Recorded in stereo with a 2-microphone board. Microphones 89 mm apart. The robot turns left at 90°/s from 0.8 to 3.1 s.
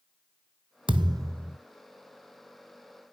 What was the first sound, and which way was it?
A thud, 110° right.